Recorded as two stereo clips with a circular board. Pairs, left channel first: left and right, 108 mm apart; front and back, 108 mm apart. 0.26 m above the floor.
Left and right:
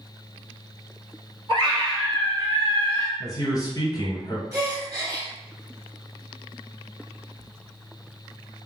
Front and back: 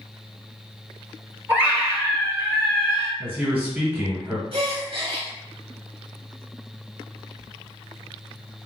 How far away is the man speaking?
About 1.4 m.